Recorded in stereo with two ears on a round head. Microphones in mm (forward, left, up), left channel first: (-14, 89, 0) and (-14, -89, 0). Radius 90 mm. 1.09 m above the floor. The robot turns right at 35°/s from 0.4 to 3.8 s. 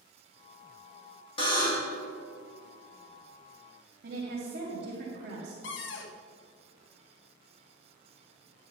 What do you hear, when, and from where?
1.4 s a buzzer: 30° left (ahead or behind), 1.5 m; by 2.0 s 10° left (ahead or behind), 1.5 m
4.0 s a woman speaking: 55° right (ahead or behind), 1.9 m
5.6 s a cupboard door: 60° left (ahead or behind), 0.6 m